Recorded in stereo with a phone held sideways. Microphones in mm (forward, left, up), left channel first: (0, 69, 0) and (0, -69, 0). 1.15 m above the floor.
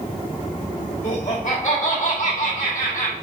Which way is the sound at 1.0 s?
55° left (ahead or behind).